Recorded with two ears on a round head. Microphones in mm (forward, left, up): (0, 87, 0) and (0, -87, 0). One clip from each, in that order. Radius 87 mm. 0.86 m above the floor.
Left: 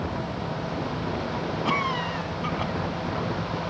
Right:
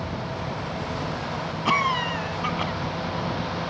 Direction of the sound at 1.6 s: 25° right (ahead or behind).